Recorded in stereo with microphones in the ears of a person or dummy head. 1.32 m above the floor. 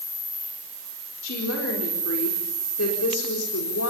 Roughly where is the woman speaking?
Left.